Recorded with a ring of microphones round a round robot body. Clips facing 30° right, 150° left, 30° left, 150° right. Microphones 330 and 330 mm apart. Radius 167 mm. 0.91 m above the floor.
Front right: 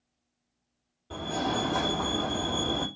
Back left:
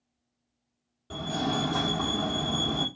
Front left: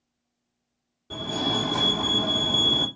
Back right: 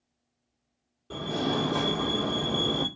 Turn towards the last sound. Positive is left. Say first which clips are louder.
# back left 1 dB, even
turn(degrees=110)